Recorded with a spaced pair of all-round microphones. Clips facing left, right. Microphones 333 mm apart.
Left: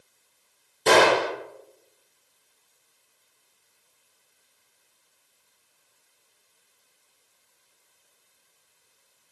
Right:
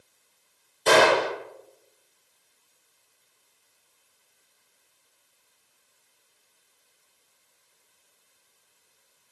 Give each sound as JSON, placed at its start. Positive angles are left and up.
{"t": 0.9, "sound": "a gunshot", "side_deg": 35, "distance_m": 1.4}